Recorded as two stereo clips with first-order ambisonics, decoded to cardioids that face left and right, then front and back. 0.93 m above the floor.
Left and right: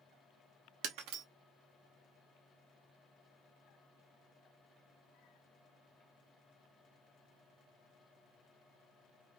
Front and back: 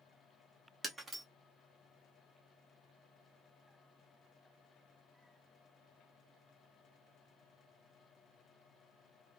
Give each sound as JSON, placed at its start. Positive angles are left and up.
{"t": 0.8, "sound": "breaking glass", "azimuth_deg": -105, "distance_m": 0.8}